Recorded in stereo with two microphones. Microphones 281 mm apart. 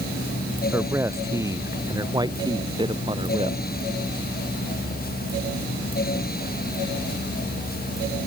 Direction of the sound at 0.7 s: 10° right (ahead or behind).